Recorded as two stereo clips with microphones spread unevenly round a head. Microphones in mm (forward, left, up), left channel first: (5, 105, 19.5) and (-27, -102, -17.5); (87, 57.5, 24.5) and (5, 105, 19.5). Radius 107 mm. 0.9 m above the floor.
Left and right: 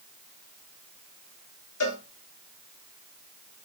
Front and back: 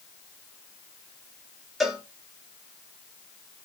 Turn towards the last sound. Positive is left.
turn(degrees=60)